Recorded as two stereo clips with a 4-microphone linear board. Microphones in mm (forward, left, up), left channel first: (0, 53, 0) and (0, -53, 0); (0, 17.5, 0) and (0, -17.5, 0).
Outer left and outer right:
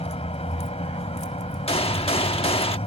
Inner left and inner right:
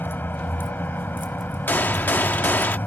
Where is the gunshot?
65° left (ahead or behind).